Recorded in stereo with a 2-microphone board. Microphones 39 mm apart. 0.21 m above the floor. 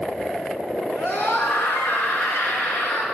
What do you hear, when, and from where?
1.0 s a scream: 65° left (ahead or behind), 2.5 m